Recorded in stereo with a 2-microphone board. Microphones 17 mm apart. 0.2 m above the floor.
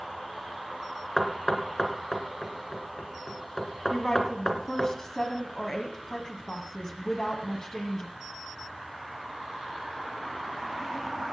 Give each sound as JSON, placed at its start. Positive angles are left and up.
{"t": 1.2, "sound": "knocking", "side_deg": 35, "distance_m": 2.5}
{"t": 3.9, "sound": "a woman speaking", "side_deg": 35, "distance_m": 1.8}